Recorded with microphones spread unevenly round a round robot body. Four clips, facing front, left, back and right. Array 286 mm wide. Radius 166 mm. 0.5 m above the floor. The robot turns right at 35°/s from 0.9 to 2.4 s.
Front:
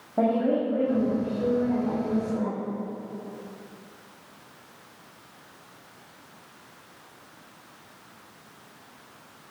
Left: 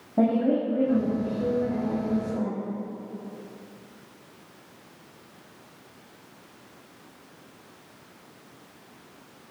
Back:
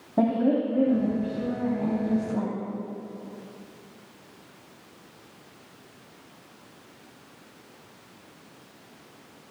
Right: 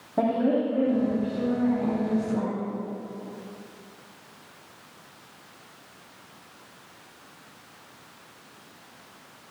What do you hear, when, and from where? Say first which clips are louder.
0.2 s a woman speaking: left 1 dB, back 1 dB; 150° left, 3.5 m; by 2.6 s 155° right, 3.5 m